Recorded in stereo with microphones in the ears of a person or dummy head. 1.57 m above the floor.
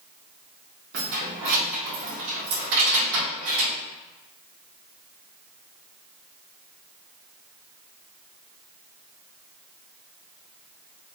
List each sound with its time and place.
0.9 s keys jangling: 55° right (ahead or behind), 0.9 m